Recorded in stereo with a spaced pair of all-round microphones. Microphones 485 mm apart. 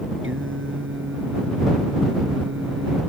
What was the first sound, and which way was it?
Singing, 25° right (ahead or behind).